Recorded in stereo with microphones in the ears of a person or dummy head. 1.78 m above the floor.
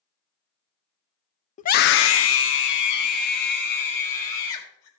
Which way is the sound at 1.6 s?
40° left (ahead or behind).